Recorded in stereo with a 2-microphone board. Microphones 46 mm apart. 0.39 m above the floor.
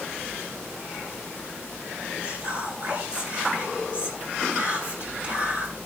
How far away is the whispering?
About 3 m.